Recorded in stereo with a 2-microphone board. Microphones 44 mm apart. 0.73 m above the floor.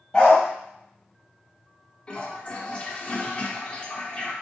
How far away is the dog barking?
About 1.7 m.